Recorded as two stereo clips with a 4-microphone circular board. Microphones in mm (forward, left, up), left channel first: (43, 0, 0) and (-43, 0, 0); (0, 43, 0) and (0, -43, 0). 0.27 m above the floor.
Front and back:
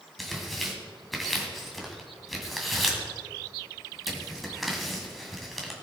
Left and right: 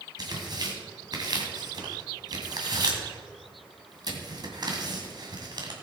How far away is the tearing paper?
About 2 m.